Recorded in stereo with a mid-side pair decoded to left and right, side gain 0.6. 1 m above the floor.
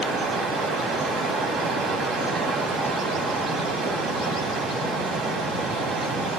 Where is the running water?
55° right, 3.5 m.